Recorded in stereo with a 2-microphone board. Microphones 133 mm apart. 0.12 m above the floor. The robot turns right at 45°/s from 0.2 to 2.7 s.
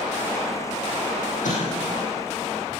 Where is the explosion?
75° left (ahead or behind), 6.5 m; by 2.0 s 55° left (ahead or behind), 6.5 m.